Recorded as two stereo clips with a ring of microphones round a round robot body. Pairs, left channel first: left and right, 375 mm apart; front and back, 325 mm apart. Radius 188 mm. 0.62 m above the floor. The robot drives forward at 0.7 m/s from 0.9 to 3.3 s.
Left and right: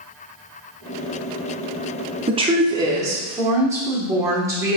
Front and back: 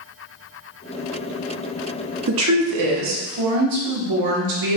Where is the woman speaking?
155° right, 0.6 m; by 4.8 s 170° right, 1.2 m.